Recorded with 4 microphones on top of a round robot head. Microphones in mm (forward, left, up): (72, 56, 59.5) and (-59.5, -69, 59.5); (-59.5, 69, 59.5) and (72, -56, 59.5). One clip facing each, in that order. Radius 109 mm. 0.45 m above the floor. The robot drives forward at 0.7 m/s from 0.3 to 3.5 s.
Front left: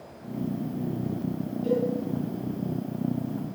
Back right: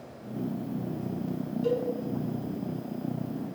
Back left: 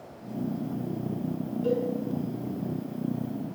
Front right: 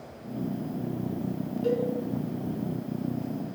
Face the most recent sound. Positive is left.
turn(degrees=-125)